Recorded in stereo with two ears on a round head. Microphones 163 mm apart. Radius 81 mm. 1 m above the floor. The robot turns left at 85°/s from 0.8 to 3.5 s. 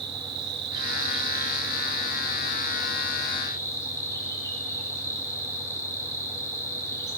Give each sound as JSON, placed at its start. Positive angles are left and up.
{"t": 0.0, "sound": "an insect", "azimuth_deg": -115, "distance_m": 8.5}